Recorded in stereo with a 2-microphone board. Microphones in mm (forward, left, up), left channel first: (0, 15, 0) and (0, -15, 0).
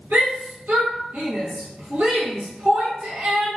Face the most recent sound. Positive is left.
turn(degrees=-60)  # may be behind; listen again after turning